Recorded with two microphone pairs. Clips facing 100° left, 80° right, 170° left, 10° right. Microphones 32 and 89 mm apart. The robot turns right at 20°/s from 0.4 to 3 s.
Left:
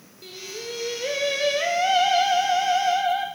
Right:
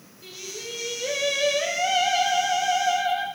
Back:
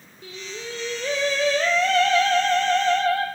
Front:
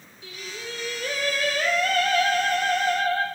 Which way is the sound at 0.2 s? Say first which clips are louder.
Left 2 dB, back 2 dB; 125° left.